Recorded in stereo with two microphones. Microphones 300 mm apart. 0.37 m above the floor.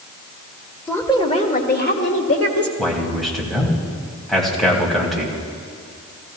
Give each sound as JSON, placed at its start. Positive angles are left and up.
{"t": 0.9, "sound": "a woman speaking", "side_deg": 5, "distance_m": 0.9}
{"t": 2.8, "sound": "a man speaking", "side_deg": 0, "distance_m": 2.5}